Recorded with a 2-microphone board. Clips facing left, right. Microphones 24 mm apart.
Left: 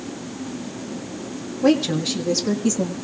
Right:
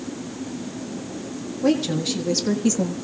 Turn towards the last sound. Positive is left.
turn(degrees=-25)  # may be behind; listen again after turning